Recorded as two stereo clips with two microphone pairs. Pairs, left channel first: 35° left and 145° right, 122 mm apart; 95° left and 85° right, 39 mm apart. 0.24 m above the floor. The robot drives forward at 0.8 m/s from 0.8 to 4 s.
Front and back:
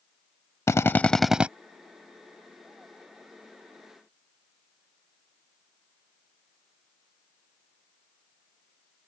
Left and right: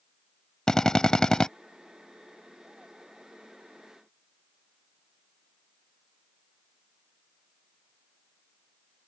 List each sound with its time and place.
0.7 s a drill: 50° left; by 1.5 s 145° left